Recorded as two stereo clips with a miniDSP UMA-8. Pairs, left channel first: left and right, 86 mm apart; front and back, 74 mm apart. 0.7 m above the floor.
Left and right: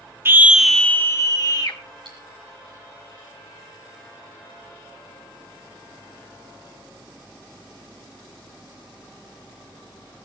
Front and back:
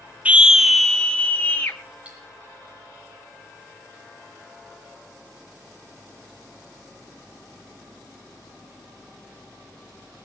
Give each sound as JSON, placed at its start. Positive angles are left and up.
{"t": 0.2, "sound": "a scream", "azimuth_deg": -125, "distance_m": 0.6}
{"t": 2.0, "sound": "cutlery clinking", "azimuth_deg": -105, "distance_m": 9.5}